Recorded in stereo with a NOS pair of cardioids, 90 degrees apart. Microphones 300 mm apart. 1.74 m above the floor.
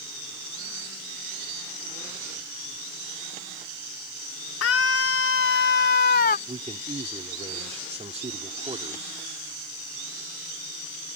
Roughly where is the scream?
Ahead left.